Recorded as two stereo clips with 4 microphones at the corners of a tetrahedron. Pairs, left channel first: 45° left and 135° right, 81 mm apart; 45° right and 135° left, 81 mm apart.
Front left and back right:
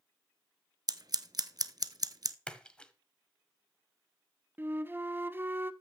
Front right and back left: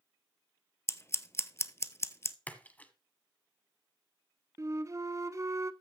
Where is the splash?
15° right, 1.2 m.